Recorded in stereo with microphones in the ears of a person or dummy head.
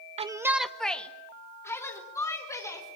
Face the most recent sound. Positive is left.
turn(degrees=15)  # may be behind; listen again after turning